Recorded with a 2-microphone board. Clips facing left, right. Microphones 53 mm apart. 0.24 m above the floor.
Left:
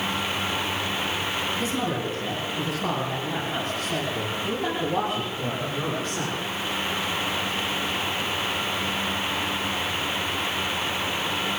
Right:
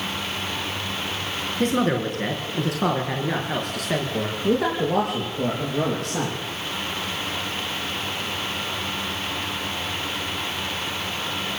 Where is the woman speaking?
50° right (ahead or behind), 4 m; by 6.4 s 80° right, 7.5 m.